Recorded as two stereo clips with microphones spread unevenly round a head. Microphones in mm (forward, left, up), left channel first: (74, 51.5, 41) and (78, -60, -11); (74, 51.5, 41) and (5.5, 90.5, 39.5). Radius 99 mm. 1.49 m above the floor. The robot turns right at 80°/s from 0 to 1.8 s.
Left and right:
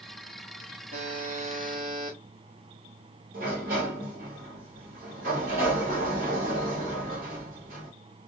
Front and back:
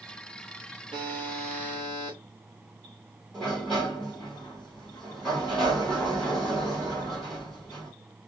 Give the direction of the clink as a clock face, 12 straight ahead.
No clink in this recording.